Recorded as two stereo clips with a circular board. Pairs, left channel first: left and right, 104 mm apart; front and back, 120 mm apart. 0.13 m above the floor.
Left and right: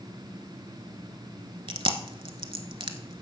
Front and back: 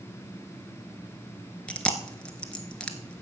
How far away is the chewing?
About 1.0 m.